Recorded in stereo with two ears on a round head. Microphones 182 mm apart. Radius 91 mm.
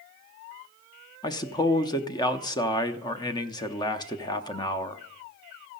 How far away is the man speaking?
About 0.5 m.